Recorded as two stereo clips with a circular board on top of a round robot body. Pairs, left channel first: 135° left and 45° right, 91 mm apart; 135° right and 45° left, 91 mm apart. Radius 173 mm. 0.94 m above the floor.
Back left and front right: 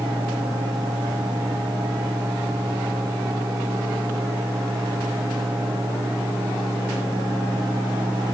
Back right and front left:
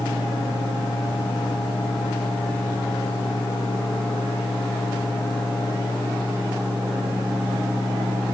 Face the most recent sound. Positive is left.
No sound to turn to.